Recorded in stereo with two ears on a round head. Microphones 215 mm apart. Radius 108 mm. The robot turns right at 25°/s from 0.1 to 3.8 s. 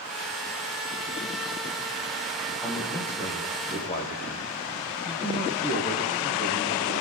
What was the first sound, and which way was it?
A man speaking, centre (ahead or behind).